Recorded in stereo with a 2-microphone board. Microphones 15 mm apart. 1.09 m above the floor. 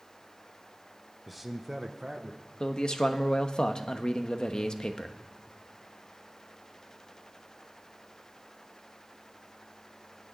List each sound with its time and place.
1.3 s a man speaking: centre (ahead or behind), 0.9 m; by 2.4 s 50° right (ahead or behind), 1.2 m
2.6 s a man speaking: 55° left (ahead or behind), 1.1 m